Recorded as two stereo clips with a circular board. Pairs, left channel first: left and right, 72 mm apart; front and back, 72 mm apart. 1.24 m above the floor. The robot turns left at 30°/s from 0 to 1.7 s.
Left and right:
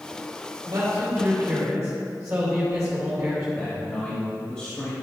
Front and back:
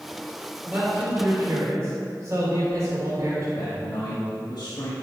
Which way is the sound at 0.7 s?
110° right.